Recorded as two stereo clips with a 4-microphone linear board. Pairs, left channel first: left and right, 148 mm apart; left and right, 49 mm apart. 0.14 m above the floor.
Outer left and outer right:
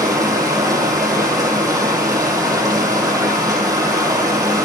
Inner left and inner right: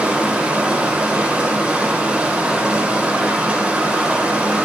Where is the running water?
25° right (ahead or behind), 3 m.